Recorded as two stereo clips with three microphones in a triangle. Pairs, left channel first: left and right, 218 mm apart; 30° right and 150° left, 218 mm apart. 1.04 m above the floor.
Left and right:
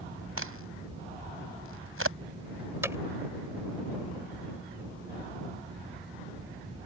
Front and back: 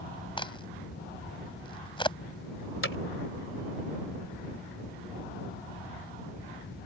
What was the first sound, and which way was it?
A crack, 100° right.